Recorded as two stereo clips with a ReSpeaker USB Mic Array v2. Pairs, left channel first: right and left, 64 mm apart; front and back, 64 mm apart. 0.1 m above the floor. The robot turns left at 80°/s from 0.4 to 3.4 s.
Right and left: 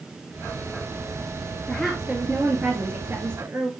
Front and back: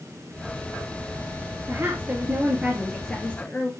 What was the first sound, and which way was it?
A woman speaking, 170° right.